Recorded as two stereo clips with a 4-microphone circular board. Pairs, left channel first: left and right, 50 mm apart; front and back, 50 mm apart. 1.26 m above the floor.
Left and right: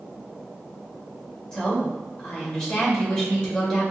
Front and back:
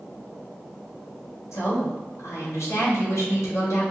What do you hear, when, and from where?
1.5 s a woman speaking: 15° left, 1.6 m